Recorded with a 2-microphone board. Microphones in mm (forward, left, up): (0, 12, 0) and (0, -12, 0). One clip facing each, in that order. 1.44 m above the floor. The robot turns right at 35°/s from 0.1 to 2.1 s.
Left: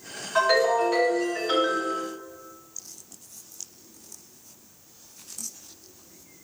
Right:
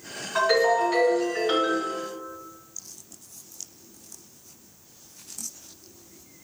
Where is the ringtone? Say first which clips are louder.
Even; 170° left, 1.3 m; by 1.9 s 135° right, 1.3 m.